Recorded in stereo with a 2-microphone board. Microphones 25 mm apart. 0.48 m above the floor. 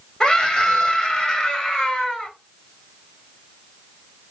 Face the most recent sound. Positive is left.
turn(degrees=25)  # may be behind; listen again after turning